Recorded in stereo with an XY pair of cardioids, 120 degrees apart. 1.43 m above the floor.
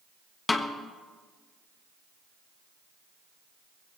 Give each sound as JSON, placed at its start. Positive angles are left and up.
{"t": 0.5, "sound": "a snare drum", "azimuth_deg": 25, "distance_m": 1.2}